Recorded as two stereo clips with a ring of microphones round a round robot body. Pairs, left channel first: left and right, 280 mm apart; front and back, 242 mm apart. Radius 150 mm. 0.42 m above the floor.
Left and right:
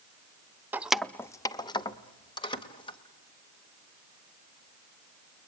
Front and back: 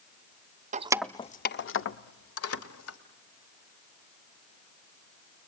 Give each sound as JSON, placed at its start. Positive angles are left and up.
{"t": 0.7, "sound": "keys jangling", "azimuth_deg": -165, "distance_m": 0.5}